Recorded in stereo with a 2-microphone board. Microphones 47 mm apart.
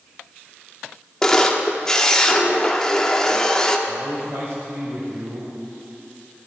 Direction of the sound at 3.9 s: 65° right (ahead or behind).